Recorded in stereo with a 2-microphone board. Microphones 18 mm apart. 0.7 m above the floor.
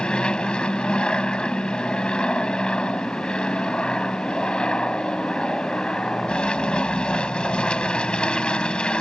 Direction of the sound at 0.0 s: 60° left (ahead or behind).